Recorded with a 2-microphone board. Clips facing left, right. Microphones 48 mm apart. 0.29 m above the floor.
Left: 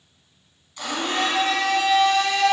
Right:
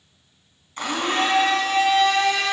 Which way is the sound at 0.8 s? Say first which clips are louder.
Right 2 dB; 45° right (ahead or behind).